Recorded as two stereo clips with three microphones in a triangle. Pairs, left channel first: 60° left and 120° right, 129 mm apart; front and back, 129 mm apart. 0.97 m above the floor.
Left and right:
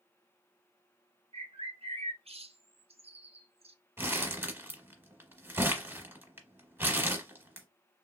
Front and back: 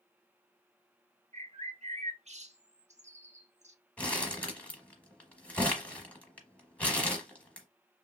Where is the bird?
155° right, 0.5 m.